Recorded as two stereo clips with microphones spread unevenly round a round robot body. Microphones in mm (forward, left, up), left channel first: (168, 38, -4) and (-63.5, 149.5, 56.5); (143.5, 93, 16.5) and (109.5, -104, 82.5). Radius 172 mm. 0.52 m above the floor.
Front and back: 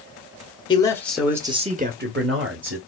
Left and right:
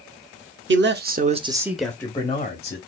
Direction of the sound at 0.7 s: 75° right.